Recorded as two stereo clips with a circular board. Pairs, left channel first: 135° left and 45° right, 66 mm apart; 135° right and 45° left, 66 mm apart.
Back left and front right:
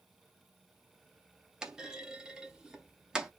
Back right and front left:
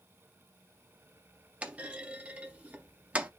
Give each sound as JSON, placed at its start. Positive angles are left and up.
{"t": 1.6, "sound": "a clunk", "azimuth_deg": 15, "distance_m": 0.5}